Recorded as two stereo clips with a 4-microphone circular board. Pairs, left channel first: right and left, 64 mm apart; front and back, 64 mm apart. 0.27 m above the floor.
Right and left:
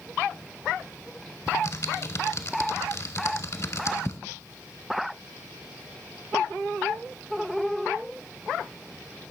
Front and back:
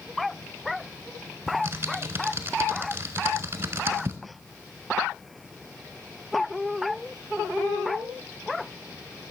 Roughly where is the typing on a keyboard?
Behind right.